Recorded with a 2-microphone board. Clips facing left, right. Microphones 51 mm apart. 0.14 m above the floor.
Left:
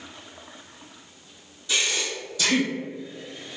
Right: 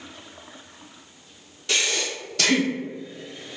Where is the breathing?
75° right (ahead or behind), 1.1 m.